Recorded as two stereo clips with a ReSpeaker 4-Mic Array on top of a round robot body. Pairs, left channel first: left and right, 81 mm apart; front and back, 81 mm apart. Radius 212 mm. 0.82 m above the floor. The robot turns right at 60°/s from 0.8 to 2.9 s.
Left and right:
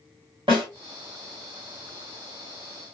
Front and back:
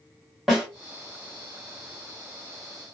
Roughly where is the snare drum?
Right.